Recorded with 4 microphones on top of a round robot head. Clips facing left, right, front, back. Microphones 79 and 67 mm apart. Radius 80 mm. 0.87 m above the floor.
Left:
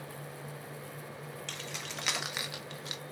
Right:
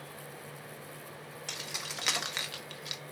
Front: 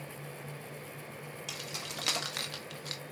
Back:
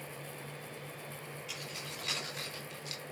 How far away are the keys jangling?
About 1.7 m.